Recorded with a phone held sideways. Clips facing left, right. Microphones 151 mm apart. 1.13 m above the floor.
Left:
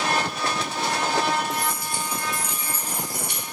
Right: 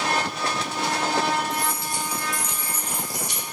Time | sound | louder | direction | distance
1.5 | keys jangling | even | 35° right (ahead or behind) | 0.8 m